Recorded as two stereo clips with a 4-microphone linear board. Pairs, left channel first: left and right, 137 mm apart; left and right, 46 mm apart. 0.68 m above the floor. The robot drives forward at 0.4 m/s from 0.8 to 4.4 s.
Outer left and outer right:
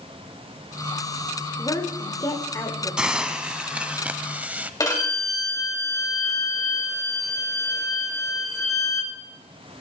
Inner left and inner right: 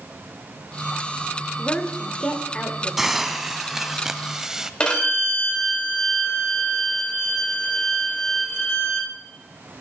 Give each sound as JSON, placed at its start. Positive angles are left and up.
{"t": 1.6, "sound": "a woman speaking", "side_deg": 30, "distance_m": 1.7}
{"t": 3.0, "sound": "a hiss", "side_deg": -5, "distance_m": 1.2}
{"t": 4.8, "sound": "a violin", "side_deg": 25, "distance_m": 2.5}